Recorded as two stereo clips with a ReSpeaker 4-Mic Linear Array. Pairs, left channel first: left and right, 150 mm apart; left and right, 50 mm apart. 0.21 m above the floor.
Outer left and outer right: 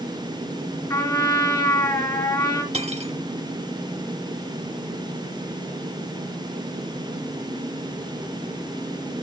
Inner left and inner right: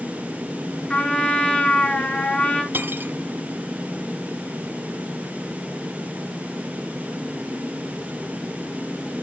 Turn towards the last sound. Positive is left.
turn(degrees=-45)  # may be behind; listen again after turning